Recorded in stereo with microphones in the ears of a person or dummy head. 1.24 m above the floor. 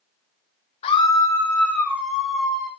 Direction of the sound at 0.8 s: 35° left (ahead or behind).